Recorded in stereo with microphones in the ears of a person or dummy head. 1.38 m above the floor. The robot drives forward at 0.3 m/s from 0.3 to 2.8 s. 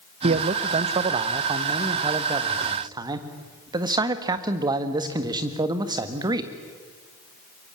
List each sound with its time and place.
0.2 s a man speaking: 35° right (ahead or behind), 1.0 m; by 6.5 s 20° right (ahead or behind), 1.6 m